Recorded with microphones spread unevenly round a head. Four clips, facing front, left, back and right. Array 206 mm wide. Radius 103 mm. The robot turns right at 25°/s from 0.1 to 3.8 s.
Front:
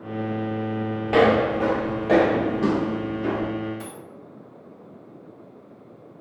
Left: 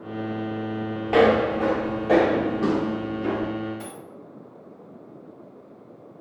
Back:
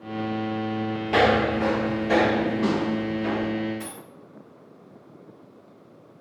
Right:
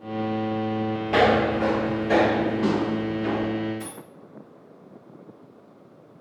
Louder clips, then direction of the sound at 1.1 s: Left 2 dB, front 2 dB; 25° right.